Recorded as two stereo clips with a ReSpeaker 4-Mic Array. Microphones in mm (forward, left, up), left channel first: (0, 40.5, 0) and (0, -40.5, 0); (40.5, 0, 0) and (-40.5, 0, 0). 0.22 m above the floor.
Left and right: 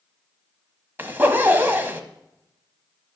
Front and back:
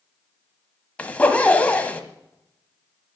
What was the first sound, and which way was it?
A zipper, 55° right.